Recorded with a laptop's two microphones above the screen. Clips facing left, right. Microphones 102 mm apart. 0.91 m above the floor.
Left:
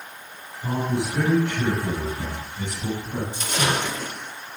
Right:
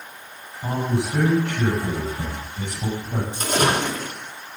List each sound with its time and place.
0.6 s a man speaking: 60° right (ahead or behind), 6.5 m
3.3 s a splash: 45° right (ahead or behind), 3 m